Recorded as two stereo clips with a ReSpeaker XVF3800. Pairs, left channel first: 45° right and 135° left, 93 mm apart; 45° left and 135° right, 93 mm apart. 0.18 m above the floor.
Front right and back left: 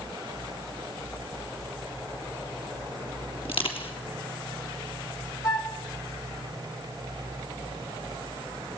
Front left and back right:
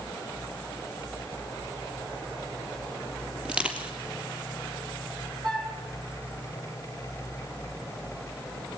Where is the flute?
95° right, 4 m.